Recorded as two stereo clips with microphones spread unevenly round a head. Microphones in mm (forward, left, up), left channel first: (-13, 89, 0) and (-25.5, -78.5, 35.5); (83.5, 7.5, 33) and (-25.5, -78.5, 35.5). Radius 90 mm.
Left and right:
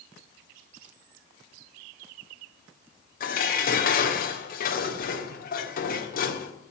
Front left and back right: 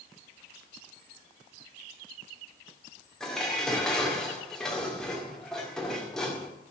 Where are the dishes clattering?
125° left, 1.9 m.